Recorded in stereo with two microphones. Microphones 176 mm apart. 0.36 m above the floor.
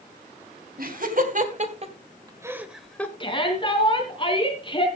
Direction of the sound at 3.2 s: 30° left (ahead or behind).